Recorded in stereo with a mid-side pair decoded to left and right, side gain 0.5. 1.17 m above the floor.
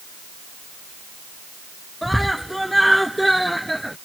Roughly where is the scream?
Ahead.